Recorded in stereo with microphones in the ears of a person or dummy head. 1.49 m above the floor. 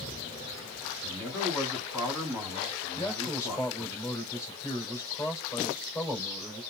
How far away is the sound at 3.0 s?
About 3.5 m.